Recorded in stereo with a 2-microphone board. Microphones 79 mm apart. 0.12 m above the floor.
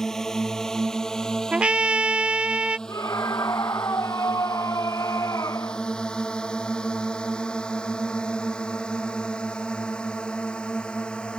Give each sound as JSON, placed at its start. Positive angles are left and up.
{"t": 0.0, "sound": "a drone", "side_deg": 5}
{"t": 1.5, "sound": "a trumpet", "side_deg": -15}
{"t": 2.9, "sound": "a scream", "side_deg": 45}